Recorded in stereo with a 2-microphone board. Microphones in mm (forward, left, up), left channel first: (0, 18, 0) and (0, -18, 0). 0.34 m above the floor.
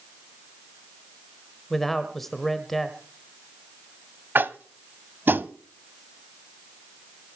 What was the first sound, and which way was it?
A man speaking, 5° left (ahead or behind).